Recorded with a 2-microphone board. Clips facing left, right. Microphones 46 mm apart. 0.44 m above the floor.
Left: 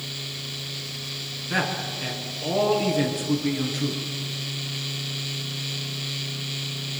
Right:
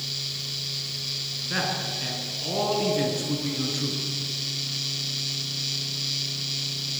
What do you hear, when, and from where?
1.5 s a man speaking: 10° left (ahead or behind), 5 m